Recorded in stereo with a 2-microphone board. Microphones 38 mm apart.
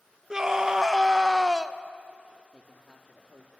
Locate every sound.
0.3 s a scream: 20° right (ahead or behind), 0.8 m
2.5 s a man speaking: 25° left (ahead or behind), 1.7 m